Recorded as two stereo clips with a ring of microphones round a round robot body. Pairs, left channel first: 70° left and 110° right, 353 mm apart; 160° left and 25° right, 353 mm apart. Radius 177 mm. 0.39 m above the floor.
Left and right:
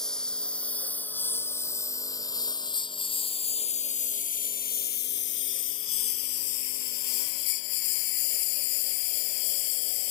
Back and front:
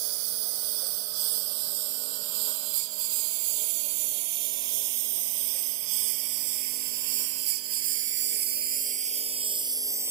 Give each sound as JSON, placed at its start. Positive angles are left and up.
{"t": 0.0, "sound": "a lawn mower", "azimuth_deg": -20}